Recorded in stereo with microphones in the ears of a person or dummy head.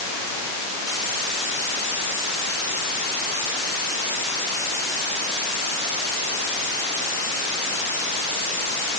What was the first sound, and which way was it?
Only background noise.